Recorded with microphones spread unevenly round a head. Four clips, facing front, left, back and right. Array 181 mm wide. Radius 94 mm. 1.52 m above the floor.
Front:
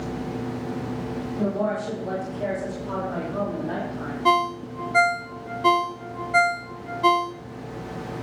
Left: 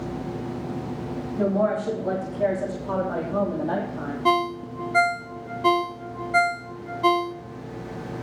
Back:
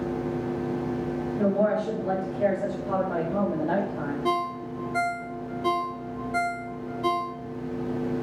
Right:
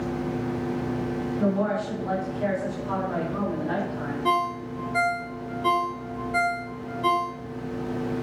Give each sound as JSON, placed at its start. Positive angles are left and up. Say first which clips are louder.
{"t": 1.4, "sound": "a woman speaking", "louder": "left 3 dB, back 2 dB", "azimuth_deg": 110, "distance_m": 3.0}
{"t": 4.2, "sound": "a ringtone", "louder": "left 3 dB, front 8 dB", "azimuth_deg": 80, "distance_m": 0.7}